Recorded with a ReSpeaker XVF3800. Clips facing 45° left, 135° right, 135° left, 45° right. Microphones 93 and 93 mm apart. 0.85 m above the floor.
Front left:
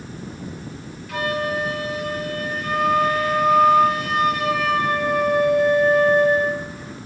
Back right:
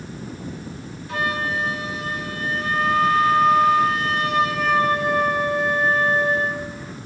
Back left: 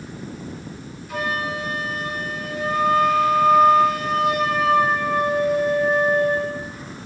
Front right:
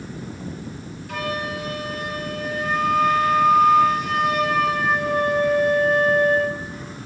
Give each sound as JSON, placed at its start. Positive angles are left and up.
{"t": 1.1, "sound": "a flute", "azimuth_deg": -75, "distance_m": 4.0}